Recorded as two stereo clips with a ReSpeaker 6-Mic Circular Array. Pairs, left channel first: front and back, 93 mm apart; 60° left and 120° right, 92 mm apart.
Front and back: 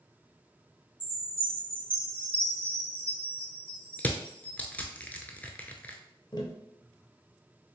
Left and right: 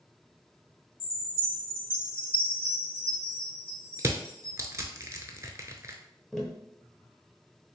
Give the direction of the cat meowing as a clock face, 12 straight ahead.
I don't hear a cat meowing.